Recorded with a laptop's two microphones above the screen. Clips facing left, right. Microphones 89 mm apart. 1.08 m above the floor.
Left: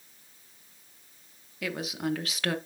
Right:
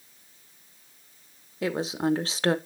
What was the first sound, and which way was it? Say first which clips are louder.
A woman speaking: right 6 dB; 30° right (ahead or behind).